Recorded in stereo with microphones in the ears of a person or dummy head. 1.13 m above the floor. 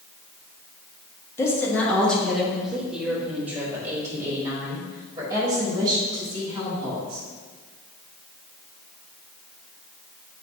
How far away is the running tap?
I don't hear a running tap.